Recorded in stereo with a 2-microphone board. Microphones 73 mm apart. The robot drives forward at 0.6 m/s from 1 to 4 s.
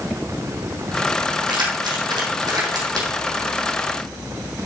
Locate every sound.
1.5 s keys jangling: 70° right (ahead or behind), 2.5 m; by 3.1 s 60° right (ahead or behind), 2.5 m